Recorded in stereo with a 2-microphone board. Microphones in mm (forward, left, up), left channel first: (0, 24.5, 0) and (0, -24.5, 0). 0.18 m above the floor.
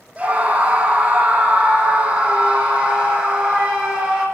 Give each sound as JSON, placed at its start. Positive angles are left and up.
{"t": 0.2, "sound": "a scream", "side_deg": -25, "distance_m": 7.5}